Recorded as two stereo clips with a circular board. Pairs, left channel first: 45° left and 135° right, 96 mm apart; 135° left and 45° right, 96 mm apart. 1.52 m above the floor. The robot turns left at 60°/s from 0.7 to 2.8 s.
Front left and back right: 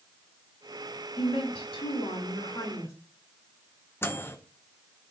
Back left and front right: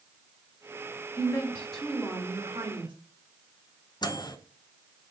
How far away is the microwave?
About 0.8 m.